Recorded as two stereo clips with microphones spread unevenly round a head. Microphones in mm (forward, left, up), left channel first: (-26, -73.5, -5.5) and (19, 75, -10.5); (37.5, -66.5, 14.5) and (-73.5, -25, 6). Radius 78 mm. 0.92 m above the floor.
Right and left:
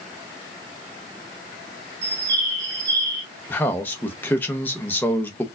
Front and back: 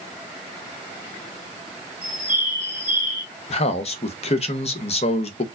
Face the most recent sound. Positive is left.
turn(degrees=-30)